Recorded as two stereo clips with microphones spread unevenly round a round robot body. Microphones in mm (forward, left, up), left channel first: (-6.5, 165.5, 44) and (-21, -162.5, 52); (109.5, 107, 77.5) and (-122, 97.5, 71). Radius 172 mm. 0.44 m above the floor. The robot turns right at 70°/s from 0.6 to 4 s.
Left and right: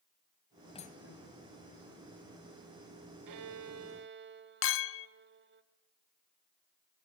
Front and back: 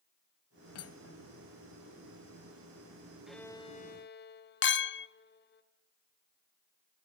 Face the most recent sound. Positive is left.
turn(degrees=40)